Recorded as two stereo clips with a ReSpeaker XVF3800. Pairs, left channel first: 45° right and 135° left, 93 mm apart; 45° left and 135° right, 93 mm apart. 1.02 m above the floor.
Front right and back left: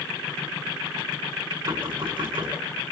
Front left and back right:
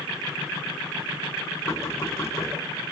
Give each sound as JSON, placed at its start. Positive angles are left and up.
{"t": 1.7, "sound": "knocking", "azimuth_deg": 105, "distance_m": 8.5}